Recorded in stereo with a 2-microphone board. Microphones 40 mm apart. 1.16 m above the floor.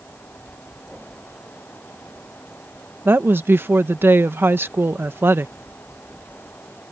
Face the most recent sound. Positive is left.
turn(degrees=-60)  # may be behind; listen again after turning